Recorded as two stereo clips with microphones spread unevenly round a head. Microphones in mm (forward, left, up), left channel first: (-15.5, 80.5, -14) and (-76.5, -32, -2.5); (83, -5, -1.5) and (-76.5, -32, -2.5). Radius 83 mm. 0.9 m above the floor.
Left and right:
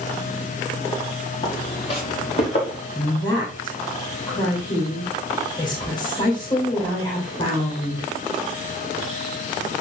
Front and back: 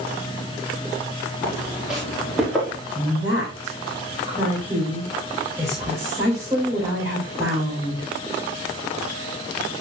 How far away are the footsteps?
About 5 m.